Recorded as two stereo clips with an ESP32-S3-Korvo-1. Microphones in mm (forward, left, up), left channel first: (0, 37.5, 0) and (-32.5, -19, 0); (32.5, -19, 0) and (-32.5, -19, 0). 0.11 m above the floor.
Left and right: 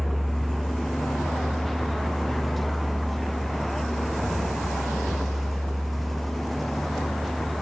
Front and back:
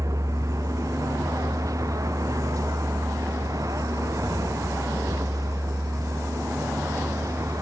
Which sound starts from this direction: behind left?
A vehicle, at 0.0 s.